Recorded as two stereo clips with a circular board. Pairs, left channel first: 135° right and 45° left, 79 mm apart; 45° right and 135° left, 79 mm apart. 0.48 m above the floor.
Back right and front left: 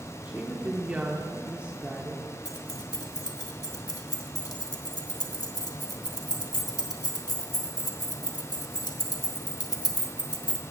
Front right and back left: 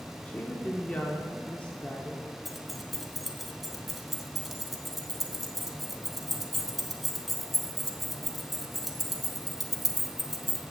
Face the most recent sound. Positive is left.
turn(degrees=-135)